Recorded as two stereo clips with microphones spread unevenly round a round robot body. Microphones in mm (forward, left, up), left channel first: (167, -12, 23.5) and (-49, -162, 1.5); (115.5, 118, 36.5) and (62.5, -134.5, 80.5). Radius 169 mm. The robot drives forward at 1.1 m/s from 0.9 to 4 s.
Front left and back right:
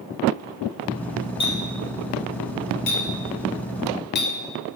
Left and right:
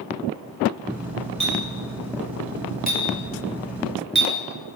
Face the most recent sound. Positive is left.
turn(degrees=-15)